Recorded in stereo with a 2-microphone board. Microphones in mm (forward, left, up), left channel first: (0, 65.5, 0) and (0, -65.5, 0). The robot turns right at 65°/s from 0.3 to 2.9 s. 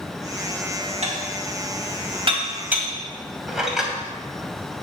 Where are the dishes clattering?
50° right (ahead or behind), 2 m; by 3.9 s 5° right (ahead or behind), 2 m.